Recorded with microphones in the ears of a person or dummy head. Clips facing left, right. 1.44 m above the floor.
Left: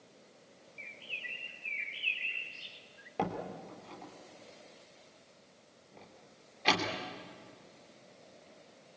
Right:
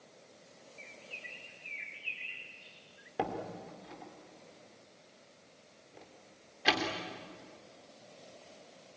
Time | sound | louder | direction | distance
0.8 | a bird | right 1 dB | 45° left (ahead or behind) | 1.4 m
3.2 | a door slam | even | 10° right (ahead or behind) | 3 m